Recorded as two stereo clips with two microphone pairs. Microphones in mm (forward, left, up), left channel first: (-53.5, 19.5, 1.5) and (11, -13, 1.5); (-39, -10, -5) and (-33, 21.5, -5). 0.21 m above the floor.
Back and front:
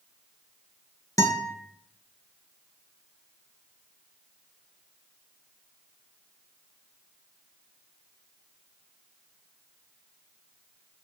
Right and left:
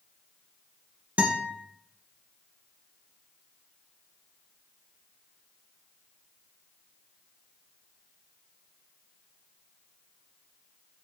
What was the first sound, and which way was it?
A guitar, 120° left.